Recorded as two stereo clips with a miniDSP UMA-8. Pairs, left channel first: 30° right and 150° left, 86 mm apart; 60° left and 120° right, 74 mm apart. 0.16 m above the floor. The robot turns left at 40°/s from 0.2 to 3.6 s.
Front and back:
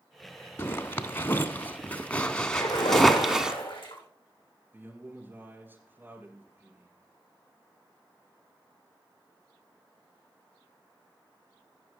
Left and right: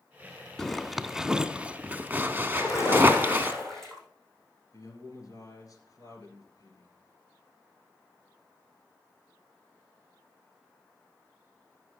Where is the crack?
I don't hear a crack.